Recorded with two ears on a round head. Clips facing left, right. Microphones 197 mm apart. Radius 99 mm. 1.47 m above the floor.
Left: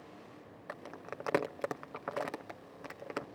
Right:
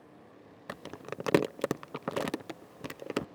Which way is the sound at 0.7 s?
45° right (ahead or behind).